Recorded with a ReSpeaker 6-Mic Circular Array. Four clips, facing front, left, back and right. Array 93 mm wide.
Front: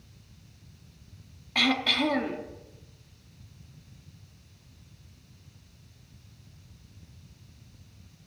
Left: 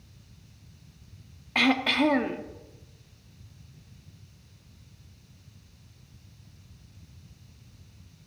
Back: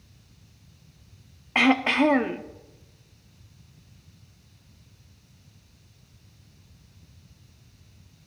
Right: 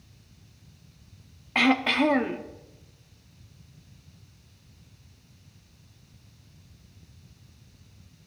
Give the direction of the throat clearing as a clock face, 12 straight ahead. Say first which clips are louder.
Right 2 dB, back 7 dB; 6 o'clock.